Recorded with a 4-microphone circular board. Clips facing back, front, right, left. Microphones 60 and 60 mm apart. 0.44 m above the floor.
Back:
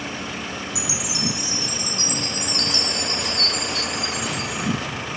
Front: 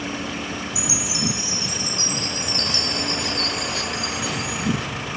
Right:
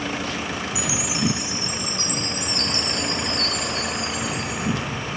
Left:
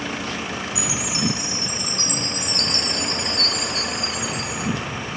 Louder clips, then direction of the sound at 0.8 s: Front 1 dB, right 1 dB; 55° left.